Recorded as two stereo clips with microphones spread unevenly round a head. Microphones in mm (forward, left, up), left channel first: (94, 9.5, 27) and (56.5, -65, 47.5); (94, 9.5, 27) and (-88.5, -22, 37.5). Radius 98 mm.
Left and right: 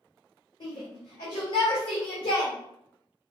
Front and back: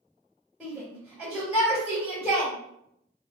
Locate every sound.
0.6 s a shout: 100° left, 1.7 m